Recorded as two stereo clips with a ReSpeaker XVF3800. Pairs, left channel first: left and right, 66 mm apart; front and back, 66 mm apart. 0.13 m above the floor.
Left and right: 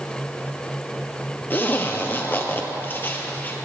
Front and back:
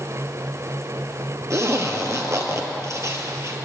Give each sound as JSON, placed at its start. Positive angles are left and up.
{"t": 1.5, "sound": "a zipper", "azimuth_deg": 145, "distance_m": 1.7}